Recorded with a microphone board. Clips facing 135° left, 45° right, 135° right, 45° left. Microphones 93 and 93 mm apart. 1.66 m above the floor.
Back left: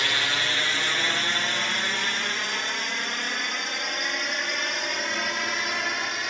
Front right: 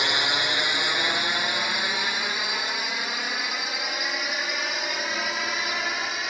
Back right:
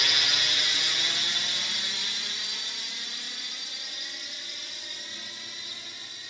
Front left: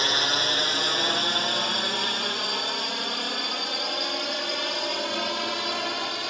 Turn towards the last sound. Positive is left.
turn(degrees=45)